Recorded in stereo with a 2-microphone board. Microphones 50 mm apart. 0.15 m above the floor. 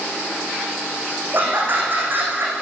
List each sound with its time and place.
1.3 s laughter: 45° right (ahead or behind), 10 m